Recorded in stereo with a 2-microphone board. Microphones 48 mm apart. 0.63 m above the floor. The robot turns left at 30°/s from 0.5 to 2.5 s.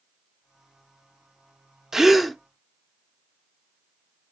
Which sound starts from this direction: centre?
A gasp, at 1.9 s.